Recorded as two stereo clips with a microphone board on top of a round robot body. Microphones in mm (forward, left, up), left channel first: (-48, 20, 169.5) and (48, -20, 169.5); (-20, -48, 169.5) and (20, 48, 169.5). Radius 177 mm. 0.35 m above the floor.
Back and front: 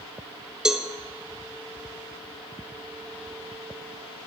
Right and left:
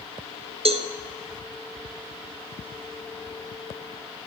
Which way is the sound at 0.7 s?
60° left.